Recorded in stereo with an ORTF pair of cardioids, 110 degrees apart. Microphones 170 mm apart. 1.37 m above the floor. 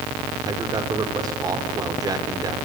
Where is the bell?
I don't hear a bell.